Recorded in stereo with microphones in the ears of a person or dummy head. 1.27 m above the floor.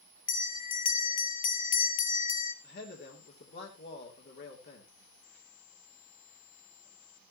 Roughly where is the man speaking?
Left.